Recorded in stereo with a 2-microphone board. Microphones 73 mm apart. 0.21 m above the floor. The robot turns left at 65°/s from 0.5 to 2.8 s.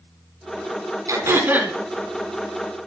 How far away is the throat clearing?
About 1.4 m.